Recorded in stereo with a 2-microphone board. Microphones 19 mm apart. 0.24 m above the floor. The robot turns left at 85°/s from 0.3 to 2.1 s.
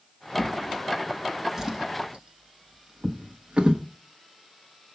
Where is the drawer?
70° left (ahead or behind), 0.9 m; by 3.8 s 70° right (ahead or behind), 0.9 m.